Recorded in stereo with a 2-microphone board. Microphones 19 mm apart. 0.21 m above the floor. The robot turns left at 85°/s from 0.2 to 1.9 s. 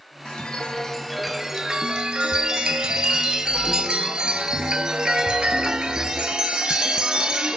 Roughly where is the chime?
Left.